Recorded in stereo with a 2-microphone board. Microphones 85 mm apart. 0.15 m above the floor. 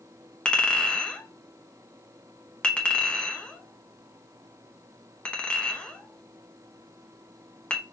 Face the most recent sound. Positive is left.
turn(degrees=15)  # may be behind; listen again after turning